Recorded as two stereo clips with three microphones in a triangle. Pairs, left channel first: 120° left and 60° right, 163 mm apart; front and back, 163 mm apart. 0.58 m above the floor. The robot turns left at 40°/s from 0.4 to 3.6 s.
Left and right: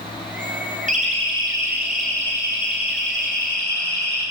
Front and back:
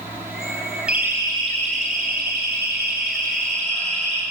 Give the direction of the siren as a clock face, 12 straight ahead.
3 o'clock.